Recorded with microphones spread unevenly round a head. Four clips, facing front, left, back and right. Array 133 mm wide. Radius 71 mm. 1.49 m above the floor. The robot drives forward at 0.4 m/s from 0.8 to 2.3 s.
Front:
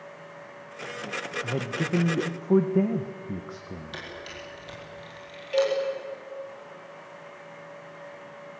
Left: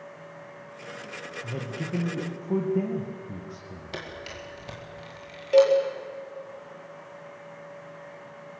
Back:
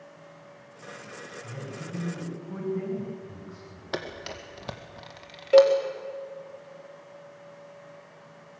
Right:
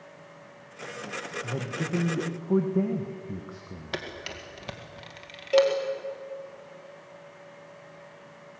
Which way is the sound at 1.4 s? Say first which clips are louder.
Even, front 10 dB; 5° right.